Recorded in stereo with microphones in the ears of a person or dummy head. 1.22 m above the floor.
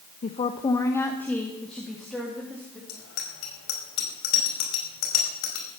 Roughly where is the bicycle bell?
Left.